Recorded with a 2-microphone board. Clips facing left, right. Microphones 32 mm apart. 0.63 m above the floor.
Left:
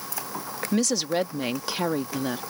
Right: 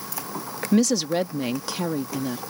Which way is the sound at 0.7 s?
5° right (ahead or behind).